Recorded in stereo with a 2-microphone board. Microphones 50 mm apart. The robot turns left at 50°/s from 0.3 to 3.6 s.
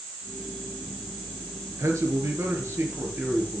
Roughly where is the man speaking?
Right.